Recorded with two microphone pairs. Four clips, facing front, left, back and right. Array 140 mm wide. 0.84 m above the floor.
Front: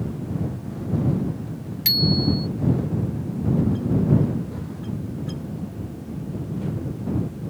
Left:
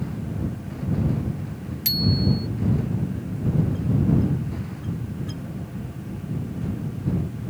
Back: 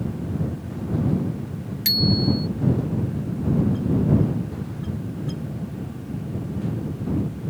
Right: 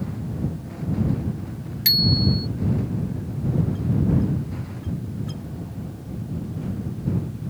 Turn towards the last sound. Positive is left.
turn(degrees=-110)